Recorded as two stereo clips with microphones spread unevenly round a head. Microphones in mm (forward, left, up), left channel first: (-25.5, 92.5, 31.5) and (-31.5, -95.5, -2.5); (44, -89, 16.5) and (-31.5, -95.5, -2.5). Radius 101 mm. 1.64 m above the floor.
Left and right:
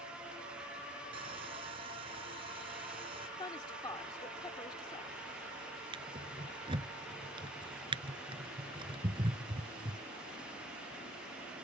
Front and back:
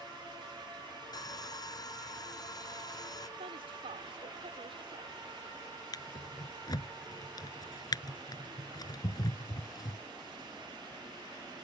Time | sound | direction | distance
1.1 | sawing | 25° right | ?
3.4 | a woman speaking | 155° left | ?
5.9 | a drawer | 25° right | ?